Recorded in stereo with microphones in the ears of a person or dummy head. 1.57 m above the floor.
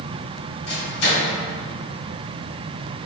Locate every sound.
0.7 s a microwave: 85° left, 1.5 m